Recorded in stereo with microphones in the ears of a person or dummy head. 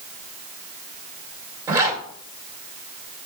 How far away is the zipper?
About 2 m.